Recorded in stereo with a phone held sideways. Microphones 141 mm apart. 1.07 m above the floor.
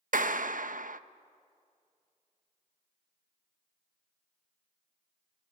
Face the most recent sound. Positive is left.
turn(degrees=-70)  # may be behind; listen again after turning